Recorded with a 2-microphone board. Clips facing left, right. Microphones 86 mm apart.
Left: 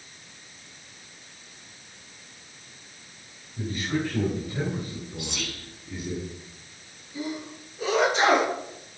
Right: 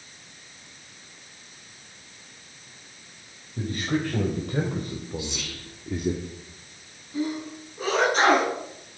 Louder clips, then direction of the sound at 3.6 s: Right 2 dB; 55° right (ahead or behind).